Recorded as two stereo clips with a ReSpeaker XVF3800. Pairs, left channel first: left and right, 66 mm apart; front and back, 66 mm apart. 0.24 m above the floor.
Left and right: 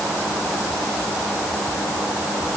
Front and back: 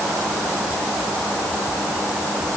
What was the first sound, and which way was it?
Only background noise.